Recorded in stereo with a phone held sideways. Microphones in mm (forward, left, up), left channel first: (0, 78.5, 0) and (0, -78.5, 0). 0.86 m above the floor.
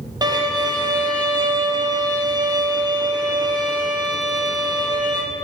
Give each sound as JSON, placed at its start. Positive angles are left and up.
{"t": 0.2, "sound": "a violin", "side_deg": -25, "distance_m": 0.8}